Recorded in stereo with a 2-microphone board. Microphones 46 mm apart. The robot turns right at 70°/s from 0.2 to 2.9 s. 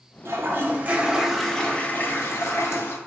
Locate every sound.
0.2 s a toilet flushing: 80° right, 0.5 m; by 3.0 s 105° left, 0.5 m